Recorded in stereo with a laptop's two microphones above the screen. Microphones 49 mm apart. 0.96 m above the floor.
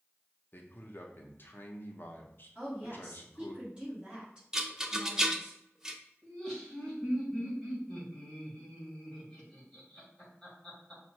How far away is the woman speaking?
About 1.7 m.